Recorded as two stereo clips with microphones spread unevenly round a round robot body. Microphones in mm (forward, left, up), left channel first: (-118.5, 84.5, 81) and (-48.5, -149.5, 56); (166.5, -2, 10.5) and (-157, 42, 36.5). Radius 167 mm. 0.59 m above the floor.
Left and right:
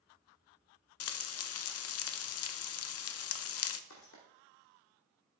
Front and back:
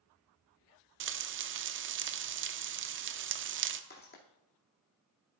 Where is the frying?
120° left, 0.6 m.